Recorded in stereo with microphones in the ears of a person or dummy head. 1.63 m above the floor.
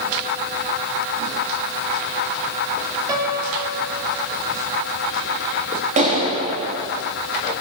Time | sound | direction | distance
3.1 | a piano | 20° right (ahead or behind) | 3 m
6.0 | a clap | 45° right (ahead or behind) | 2.5 m